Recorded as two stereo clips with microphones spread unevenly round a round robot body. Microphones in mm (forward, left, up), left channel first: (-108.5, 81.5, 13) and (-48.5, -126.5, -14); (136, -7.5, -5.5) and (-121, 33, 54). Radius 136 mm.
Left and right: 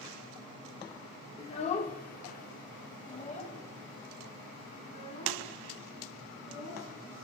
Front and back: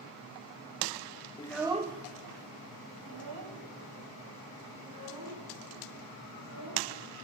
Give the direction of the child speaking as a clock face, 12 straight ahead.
11 o'clock.